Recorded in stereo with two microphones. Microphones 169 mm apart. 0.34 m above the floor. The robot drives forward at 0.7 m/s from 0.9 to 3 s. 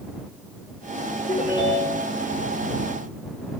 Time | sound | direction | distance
1.3 | a ringtone | 25° left (ahead or behind) | 6 m